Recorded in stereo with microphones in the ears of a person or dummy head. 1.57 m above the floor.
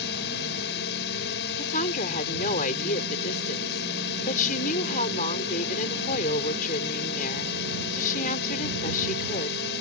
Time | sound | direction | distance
0.0 | a drone | 55° left (ahead or behind) | ?
1.6 | a woman speaking | 45° left (ahead or behind) | ?